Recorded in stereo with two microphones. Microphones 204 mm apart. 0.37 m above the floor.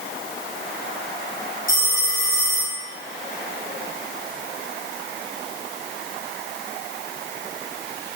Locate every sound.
1.7 s a phone ringing: 80° left, 4 m